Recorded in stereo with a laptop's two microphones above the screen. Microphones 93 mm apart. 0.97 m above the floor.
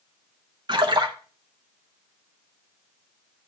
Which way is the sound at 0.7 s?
50° right (ahead or behind).